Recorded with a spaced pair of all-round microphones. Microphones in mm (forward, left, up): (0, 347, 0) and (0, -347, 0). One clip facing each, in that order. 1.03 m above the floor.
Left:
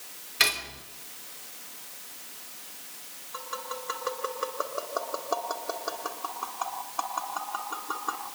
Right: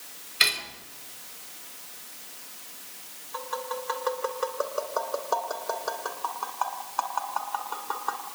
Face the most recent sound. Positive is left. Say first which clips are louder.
# right 5 dB
turn(degrees=-25)  # may be behind; listen again after turning